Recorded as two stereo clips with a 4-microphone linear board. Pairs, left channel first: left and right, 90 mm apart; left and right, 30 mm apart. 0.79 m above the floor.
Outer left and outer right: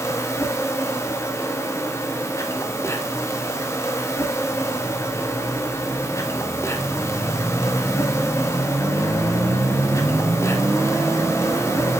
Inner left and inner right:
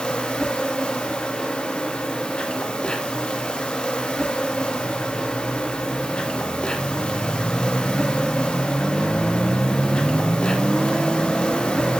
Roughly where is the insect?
Left.